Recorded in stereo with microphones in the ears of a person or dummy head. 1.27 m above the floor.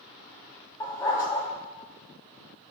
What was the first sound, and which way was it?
A dog barking, 20° left (ahead or behind).